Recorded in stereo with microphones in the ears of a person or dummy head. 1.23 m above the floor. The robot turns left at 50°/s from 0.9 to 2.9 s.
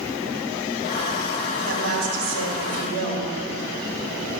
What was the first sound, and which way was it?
A woman speaking, 65° right.